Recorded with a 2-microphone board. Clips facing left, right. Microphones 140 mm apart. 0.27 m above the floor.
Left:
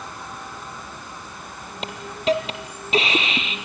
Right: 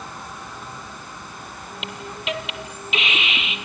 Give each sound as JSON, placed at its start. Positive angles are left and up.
{"t": 1.8, "sound": "a hiss", "side_deg": 35, "distance_m": 2.0}